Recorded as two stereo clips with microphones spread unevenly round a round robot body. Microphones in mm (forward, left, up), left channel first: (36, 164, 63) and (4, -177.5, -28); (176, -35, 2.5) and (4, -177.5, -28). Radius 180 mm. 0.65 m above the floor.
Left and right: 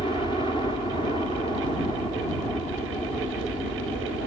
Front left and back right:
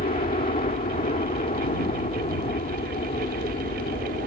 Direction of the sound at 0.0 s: Straight ahead.